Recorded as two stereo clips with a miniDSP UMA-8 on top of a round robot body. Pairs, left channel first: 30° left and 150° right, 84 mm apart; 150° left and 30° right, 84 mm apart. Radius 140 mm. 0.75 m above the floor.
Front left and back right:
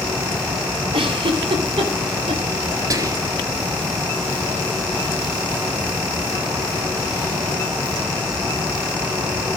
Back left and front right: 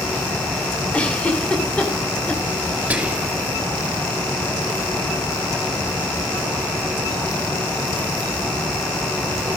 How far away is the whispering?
About 1.4 m.